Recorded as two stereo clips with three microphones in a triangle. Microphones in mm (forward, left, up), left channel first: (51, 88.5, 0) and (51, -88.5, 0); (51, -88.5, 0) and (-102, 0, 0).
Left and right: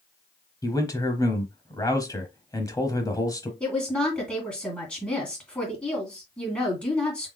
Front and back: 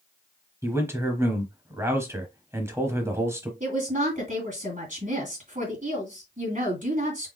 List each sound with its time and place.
0.6 s a man speaking: 105° left, 1.0 m
3.6 s a woman speaking: 170° left, 2.5 m